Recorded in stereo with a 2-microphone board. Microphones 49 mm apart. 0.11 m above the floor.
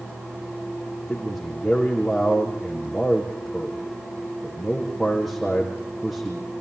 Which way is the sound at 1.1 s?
Centre (ahead or behind).